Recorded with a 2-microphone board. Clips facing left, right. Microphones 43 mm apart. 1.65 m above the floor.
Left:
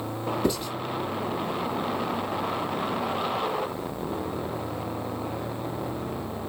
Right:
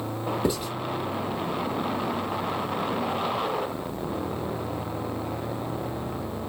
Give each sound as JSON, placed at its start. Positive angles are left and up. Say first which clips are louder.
{"t": 0.4, "sound": "writing", "louder": "even", "side_deg": -10, "distance_m": 1.6}